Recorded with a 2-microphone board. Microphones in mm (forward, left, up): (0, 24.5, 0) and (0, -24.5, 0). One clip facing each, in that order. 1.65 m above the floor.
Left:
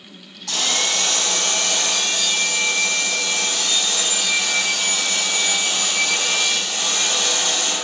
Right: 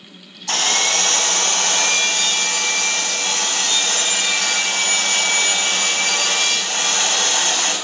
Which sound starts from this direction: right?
Sawing, at 0.5 s.